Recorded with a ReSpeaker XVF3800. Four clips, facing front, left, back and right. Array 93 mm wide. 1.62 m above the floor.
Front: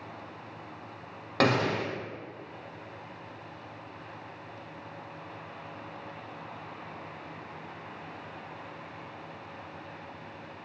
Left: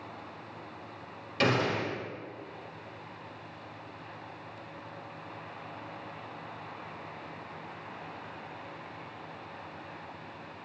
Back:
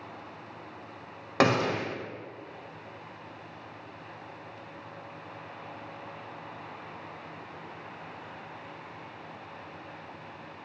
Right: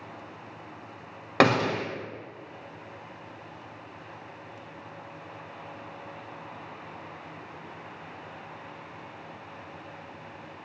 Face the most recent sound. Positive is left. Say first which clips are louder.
# right 6 dB, back 1 dB
turn(degrees=-105)